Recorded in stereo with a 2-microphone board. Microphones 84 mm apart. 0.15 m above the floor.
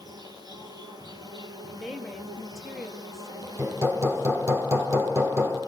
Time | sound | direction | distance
0.0 | an insect | 55° right (ahead or behind) | 3 m
1.8 | a woman speaking | centre (ahead or behind) | 2.5 m
3.6 | hammering | 35° right (ahead or behind) | 4 m